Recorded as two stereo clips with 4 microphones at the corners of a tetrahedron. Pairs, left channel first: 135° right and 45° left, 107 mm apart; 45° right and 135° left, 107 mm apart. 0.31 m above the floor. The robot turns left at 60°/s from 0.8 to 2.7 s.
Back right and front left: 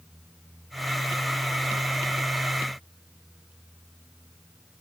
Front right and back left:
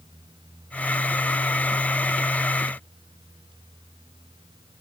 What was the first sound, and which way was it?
Only background noise.